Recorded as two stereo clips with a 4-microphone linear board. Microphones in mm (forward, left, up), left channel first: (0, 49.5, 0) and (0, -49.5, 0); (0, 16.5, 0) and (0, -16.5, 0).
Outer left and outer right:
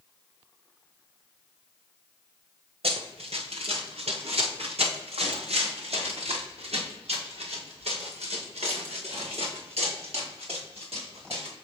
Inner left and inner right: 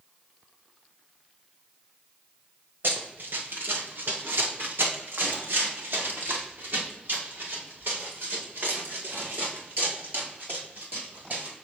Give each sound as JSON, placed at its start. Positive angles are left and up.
{"t": 2.8, "sound": "running footsteps", "side_deg": -75, "distance_m": 2.5}